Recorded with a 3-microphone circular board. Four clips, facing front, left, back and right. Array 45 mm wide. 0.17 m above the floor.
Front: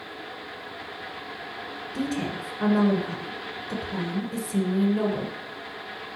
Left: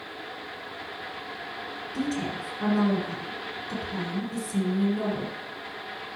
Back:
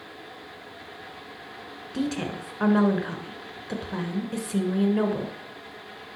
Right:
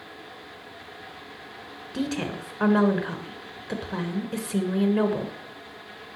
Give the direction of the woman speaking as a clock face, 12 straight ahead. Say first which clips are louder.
Right 1 dB, back 1 dB; 4 o'clock.